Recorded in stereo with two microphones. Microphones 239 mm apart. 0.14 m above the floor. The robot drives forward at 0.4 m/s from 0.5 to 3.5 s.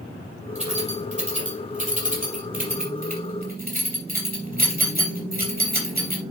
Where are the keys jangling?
30° right (ahead or behind), 4 m; by 6.2 s 40° right (ahead or behind), 3 m.